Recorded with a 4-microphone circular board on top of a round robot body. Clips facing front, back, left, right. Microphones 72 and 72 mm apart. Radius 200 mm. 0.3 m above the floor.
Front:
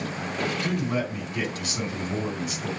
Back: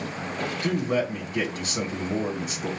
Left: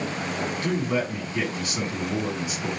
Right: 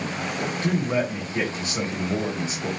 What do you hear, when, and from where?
0.6 s a man speaking: 140° right, 2.0 m